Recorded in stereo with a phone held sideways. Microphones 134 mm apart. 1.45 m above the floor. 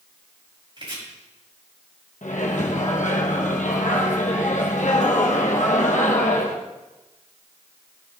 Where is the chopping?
35° right (ahead or behind), 4.5 m.